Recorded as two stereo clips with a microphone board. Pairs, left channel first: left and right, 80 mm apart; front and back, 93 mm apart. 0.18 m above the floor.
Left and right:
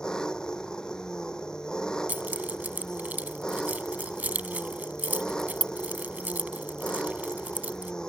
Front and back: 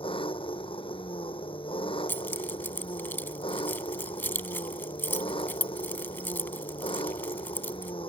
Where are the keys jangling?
45° right.